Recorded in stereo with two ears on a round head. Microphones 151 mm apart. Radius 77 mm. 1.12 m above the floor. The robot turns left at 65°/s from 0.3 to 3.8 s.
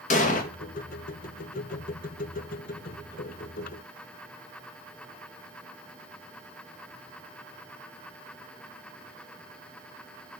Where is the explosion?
50° left (ahead or behind), 1.4 m; by 0.5 s 55° left (ahead or behind), 1.4 m.